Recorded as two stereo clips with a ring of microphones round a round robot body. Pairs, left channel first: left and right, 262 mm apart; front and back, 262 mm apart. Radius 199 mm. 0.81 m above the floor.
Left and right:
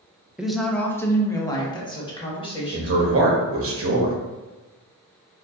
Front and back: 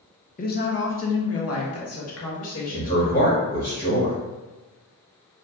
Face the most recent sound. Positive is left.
turn(degrees=-60)